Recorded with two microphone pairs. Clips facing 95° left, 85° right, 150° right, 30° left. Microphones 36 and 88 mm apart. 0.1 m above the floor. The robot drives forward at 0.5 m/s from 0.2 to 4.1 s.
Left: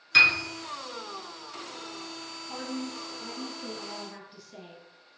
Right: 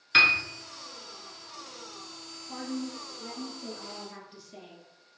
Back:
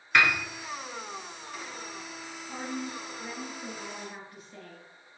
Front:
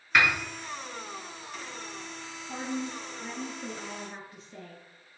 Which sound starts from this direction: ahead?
A woman speaking, at 2.5 s.